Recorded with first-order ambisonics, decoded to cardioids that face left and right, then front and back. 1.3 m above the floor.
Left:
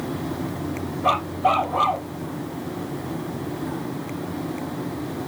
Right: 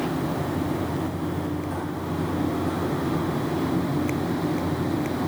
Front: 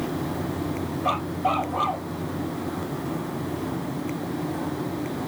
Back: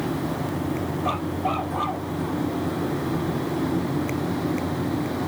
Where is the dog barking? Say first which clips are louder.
Left 10 dB, front 3 dB; 80° left.